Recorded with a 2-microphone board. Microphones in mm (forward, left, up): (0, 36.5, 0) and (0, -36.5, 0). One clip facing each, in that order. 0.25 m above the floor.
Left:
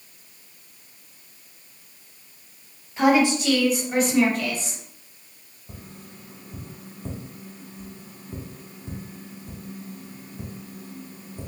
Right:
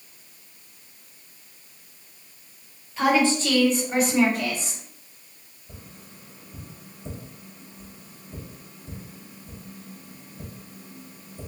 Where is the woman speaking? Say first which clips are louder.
Left 2 dB; 25° left (ahead or behind), 1.3 m; by 4.8 s 25° right (ahead or behind), 1.2 m.